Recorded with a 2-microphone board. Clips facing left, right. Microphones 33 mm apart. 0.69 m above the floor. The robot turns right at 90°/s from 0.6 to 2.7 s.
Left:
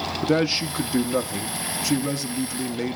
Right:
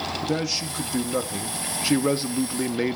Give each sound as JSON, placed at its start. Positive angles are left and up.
{"t": 0.2, "sound": "a man speaking", "azimuth_deg": 120, "distance_m": 0.5}